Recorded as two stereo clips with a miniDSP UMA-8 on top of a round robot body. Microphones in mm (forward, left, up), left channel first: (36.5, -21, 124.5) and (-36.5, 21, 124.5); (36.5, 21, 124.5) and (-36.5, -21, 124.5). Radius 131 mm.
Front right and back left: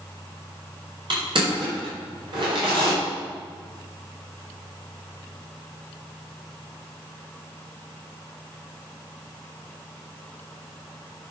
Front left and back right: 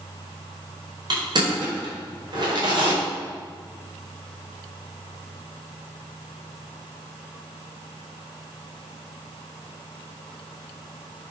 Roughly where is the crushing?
Behind.